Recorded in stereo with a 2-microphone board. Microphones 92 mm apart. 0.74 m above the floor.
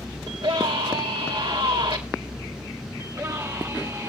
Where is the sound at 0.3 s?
70° right (ahead or behind), 3 m.